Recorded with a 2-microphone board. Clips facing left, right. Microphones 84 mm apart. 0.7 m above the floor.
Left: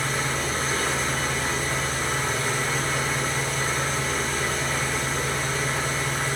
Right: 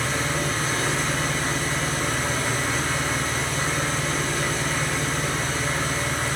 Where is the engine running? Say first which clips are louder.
Right 1 dB; 75° right (ahead or behind), 4 m.